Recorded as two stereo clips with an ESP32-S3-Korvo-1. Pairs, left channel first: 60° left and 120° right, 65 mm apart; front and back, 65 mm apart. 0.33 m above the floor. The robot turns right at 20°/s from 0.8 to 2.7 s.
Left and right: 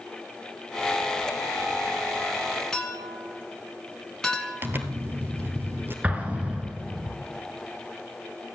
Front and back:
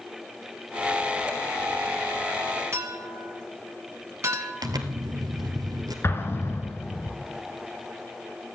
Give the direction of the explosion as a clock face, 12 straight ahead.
2 o'clock.